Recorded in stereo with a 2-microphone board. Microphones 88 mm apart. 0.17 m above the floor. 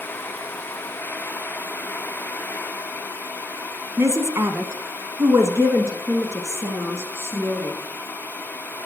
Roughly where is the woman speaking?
Right.